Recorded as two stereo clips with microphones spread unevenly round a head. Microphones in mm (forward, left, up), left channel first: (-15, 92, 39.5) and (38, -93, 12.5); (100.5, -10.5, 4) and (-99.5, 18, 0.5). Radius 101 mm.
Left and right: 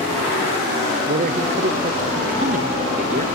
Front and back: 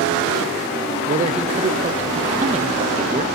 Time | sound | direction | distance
1.1 | a man speaking | 130° right | 0.9 m